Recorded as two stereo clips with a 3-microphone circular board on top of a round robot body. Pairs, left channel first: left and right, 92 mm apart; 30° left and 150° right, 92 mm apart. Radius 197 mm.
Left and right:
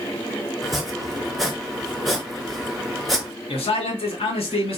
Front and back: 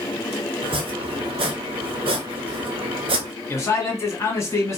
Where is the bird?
I don't hear a bird.